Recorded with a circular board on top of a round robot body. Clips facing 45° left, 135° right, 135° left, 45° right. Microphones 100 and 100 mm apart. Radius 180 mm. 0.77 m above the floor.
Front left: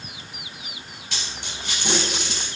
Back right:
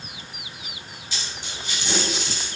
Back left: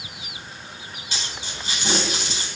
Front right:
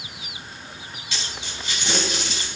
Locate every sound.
1.1 s a dropped coin: 80° left, 4.5 m